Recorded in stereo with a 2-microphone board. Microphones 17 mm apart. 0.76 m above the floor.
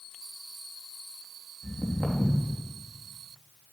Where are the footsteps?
25° left (ahead or behind), 3 m.